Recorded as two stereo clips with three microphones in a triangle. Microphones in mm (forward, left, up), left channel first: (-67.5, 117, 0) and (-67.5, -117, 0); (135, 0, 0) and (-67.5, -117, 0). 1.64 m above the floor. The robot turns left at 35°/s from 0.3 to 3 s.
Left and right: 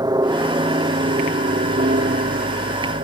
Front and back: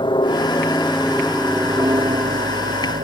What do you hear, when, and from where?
0.0 s a helicopter: 25° right; by 3.0 s 120° right